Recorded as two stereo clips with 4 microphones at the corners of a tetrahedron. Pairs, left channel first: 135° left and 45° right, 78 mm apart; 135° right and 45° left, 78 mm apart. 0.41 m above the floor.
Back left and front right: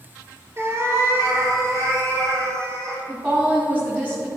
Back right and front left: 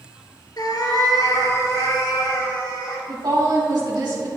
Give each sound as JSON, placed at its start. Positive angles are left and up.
{"t": 0.6, "sound": "a cat meowing", "azimuth_deg": -100, "distance_m": 1.3}
{"t": 3.1, "sound": "a woman speaking", "azimuth_deg": 25, "distance_m": 2.5}